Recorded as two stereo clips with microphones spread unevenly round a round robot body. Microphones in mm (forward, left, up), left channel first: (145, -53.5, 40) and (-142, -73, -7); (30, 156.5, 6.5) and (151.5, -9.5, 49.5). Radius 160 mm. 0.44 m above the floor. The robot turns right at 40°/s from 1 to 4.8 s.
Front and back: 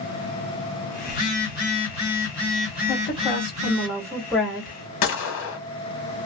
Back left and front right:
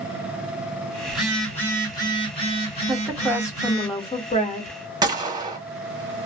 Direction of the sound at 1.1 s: 40° left.